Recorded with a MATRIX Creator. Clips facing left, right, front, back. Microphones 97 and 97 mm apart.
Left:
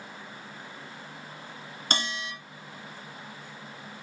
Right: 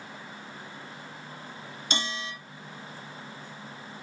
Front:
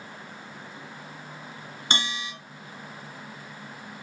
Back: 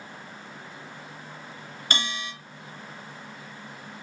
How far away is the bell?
About 1.9 m.